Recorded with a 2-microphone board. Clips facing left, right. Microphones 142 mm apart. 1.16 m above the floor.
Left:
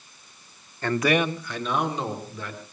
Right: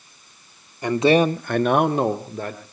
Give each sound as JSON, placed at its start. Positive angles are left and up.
{"t": 0.8, "sound": "a man speaking", "side_deg": -15, "distance_m": 1.0}